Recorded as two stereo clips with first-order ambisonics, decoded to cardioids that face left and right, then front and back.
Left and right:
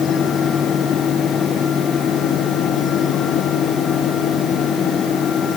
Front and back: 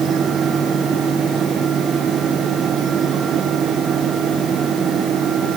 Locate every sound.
Only background noise.